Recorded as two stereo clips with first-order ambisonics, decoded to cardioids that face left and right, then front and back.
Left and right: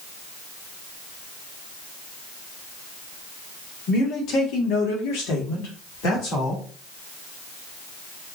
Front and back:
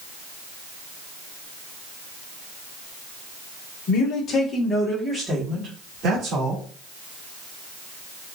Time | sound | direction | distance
3.9 | a man speaking | 40° left | 1.4 m